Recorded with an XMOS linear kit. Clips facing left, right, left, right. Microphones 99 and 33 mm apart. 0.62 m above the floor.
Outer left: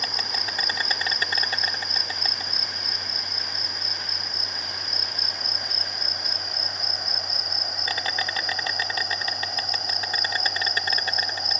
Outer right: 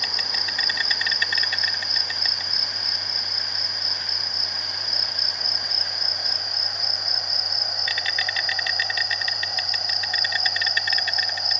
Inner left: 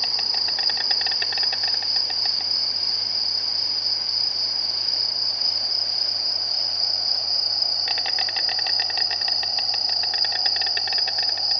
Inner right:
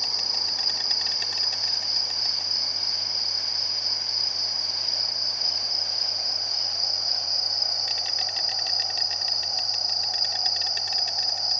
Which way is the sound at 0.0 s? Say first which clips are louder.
Outer left 1 dB, inner left 3 dB; 35° left (ahead or behind).